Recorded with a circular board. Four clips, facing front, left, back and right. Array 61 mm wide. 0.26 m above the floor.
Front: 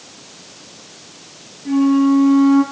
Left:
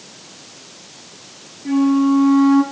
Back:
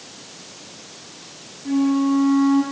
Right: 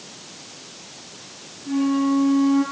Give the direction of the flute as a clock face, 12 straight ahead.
9 o'clock.